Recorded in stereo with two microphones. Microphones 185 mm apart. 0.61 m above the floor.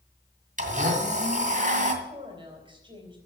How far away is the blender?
About 2 m.